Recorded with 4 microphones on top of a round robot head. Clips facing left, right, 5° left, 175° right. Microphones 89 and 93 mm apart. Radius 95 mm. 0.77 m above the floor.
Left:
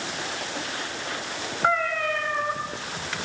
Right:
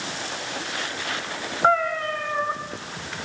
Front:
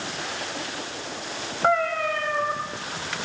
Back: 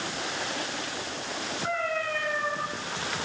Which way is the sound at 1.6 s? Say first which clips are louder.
Right 3 dB, front 9 dB; 20° right.